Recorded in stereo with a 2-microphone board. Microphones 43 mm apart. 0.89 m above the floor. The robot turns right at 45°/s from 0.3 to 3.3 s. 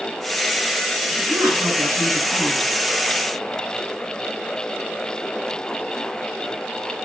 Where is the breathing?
No breathing in this recording.